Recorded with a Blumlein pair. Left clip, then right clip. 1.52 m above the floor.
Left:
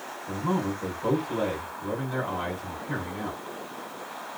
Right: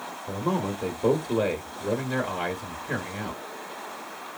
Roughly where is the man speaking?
Right.